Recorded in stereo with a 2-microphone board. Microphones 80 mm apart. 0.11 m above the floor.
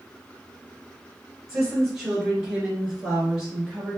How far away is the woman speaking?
About 2 m.